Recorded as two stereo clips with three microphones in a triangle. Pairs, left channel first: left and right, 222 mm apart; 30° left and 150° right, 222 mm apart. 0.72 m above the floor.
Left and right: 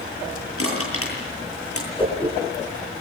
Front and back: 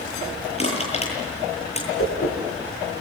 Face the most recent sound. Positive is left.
turn(degrees=20)